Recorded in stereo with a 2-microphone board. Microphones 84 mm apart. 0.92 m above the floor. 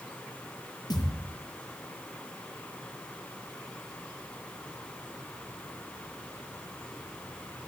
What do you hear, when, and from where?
0.9 s a thud: 50° left (ahead or behind), 8 m